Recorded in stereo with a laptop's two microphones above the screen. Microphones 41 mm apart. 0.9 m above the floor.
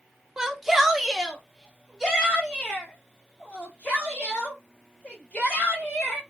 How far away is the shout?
About 0.9 m.